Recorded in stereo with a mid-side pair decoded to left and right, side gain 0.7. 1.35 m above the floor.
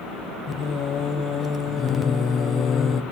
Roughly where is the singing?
Ahead left.